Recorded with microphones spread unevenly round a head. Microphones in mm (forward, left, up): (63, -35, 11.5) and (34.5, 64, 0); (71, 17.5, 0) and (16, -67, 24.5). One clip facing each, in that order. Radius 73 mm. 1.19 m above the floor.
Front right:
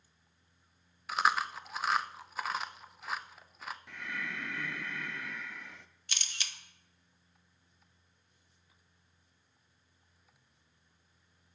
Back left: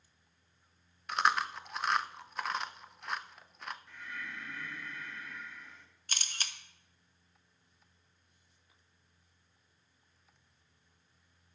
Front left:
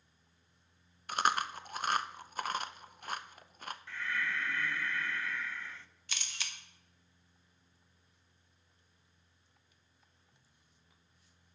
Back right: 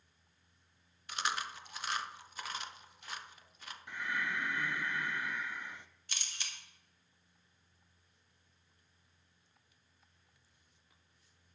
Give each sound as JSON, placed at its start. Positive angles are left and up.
{"t": 1.1, "sound": "chewing", "azimuth_deg": 15, "distance_m": 0.5}
{"t": 3.9, "sound": "breathing", "azimuth_deg": -50, "distance_m": 0.6}
{"t": 6.1, "sound": "a camera shutter", "azimuth_deg": 55, "distance_m": 1.0}